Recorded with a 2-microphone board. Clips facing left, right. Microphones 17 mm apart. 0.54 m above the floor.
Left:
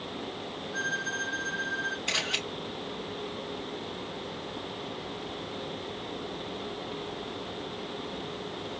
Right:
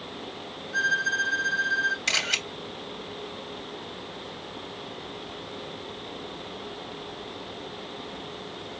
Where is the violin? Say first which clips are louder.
Right 8 dB; 60° right (ahead or behind), 3.5 m.